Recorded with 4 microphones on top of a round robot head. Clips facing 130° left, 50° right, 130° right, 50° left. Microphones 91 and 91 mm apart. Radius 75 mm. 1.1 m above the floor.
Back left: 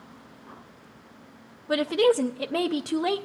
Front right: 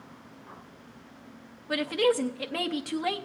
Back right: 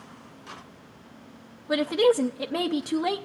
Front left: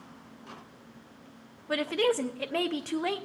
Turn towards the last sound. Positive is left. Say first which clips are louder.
# back left 4 dB, back right 6 dB
turn(degrees=170)